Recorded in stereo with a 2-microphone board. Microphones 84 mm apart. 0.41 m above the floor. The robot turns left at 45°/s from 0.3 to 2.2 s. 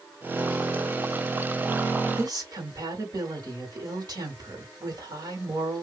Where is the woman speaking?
55° right (ahead or behind), 1.9 m.